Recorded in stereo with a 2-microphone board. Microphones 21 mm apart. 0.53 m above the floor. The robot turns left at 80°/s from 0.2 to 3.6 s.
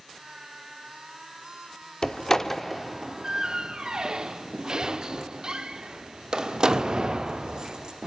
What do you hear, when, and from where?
2.0 s a door slam: 40° left (ahead or behind), 1.0 m; by 8.1 s 40° right (ahead or behind), 1.0 m